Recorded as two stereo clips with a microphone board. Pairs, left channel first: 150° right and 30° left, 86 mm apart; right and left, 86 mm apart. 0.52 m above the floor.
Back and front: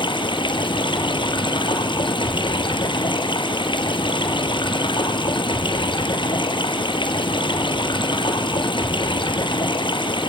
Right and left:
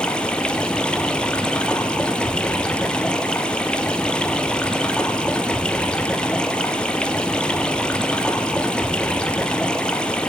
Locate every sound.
0.0 s running water: 170° right, 1.8 m